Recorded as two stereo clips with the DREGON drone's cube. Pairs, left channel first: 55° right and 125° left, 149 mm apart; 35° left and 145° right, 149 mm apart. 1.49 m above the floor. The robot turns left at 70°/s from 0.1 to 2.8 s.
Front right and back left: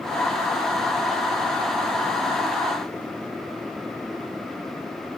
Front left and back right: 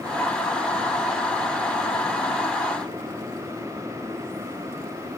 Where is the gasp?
I don't hear a gasp.